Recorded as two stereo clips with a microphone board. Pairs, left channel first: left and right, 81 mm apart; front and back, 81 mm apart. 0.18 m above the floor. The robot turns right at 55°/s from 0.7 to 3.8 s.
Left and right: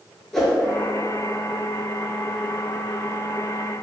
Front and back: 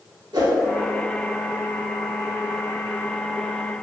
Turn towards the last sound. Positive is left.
turn(degrees=-15)